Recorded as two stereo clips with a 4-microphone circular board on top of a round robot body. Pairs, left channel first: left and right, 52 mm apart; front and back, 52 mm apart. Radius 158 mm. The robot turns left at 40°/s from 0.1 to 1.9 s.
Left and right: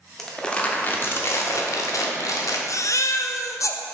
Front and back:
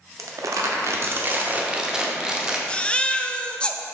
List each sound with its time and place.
0.2 s crumpling: 175° left, 0.8 m; by 2.6 s 105° left, 0.8 m
2.7 s a baby crying: 70° left, 0.5 m